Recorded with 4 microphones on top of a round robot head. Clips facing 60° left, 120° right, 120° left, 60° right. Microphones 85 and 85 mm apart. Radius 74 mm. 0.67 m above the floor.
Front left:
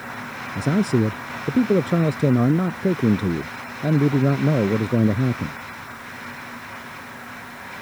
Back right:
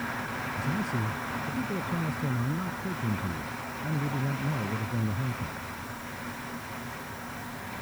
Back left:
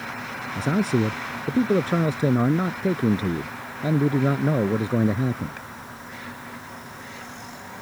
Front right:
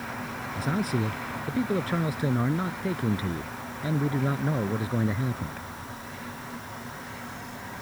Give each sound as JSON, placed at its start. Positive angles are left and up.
{"t": 0.6, "sound": "a man speaking", "azimuth_deg": 60}